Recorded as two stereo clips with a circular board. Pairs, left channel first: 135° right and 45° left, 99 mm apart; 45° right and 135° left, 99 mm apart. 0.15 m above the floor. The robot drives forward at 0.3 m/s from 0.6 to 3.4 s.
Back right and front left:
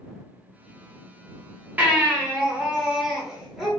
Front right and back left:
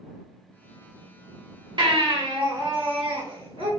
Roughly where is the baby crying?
Behind left.